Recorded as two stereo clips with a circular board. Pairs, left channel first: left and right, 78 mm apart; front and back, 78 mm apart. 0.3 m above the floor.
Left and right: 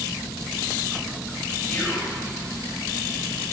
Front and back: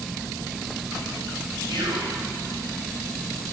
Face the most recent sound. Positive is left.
turn(degrees=165)